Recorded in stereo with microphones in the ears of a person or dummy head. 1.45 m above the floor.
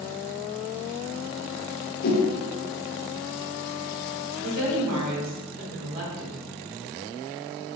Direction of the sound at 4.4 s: 60° right (ahead or behind).